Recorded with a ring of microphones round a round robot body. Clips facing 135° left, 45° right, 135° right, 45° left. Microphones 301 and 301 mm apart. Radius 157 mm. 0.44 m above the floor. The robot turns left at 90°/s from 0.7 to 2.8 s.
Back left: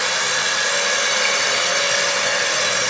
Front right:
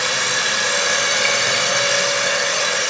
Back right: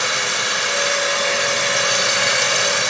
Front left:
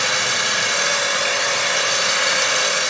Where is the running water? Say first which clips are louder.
Front right 1 dB, even; 15° left, 0.9 m; by 2.9 s 175° right, 0.9 m.